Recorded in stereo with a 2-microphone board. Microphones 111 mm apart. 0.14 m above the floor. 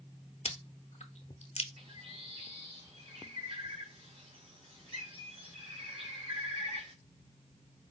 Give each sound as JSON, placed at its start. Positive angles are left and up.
{"t": 0.5, "sound": "chewing", "side_deg": 65, "distance_m": 0.6}
{"t": 1.8, "sound": "a bird", "side_deg": -50, "distance_m": 1.5}